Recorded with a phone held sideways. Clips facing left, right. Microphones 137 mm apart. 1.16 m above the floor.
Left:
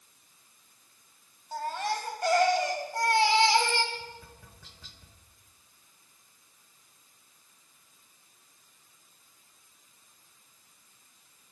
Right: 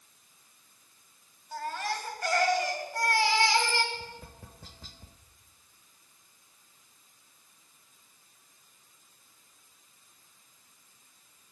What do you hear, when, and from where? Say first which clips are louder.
1.5 s a baby crying: left 2 dB; 25° left (ahead or behind), 1.9 m
3.9 s tapping: even; 40° right (ahead or behind), 0.7 m